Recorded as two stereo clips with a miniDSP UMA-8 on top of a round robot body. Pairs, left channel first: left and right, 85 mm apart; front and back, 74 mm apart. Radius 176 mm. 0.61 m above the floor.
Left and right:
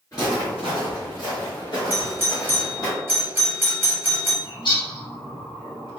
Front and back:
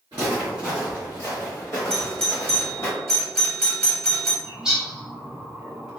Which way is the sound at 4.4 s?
100° left.